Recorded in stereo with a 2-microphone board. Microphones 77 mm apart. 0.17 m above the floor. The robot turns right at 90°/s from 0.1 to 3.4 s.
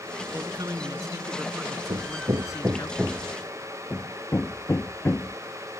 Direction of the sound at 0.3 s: 135° right.